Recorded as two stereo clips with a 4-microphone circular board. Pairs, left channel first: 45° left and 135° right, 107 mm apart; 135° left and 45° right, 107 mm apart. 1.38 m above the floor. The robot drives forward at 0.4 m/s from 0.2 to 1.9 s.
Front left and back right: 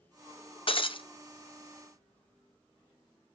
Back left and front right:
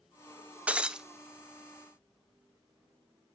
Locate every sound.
0.7 s breaking glass: 30° left, 0.8 m; by 1.1 s 40° left, 0.7 m